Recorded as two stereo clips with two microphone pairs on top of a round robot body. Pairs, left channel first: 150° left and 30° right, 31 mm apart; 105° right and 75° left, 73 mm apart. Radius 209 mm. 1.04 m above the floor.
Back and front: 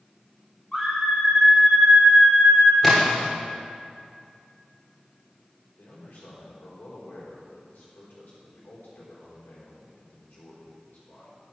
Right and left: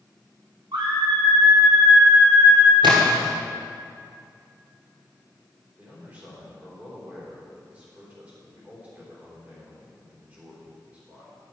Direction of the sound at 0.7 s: 65° left.